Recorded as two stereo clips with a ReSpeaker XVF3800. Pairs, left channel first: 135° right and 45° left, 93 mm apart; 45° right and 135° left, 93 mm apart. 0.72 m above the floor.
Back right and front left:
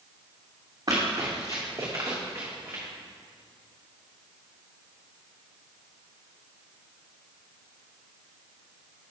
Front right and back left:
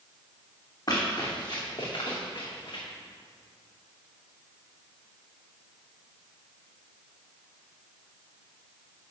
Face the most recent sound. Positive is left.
turn(degrees=-20)